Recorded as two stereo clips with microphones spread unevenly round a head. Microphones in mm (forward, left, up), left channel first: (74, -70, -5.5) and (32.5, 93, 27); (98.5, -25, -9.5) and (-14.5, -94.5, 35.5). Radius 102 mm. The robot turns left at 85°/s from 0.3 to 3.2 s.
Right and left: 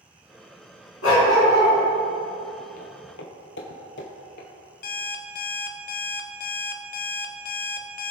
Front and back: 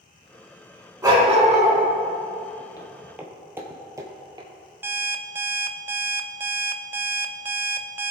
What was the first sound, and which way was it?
A dog barking, 85° right.